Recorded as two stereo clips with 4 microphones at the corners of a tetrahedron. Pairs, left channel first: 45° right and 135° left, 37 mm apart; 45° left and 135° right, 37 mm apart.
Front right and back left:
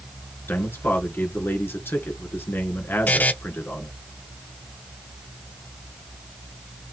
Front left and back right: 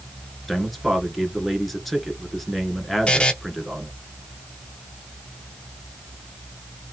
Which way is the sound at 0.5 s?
45° right.